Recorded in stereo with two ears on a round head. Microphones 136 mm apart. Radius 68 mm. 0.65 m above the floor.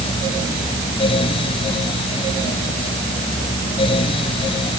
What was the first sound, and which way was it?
Only background noise.